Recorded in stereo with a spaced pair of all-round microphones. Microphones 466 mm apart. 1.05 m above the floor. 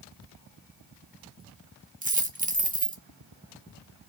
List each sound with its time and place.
2.0 s a dropped coin: 15° right (ahead or behind), 0.9 m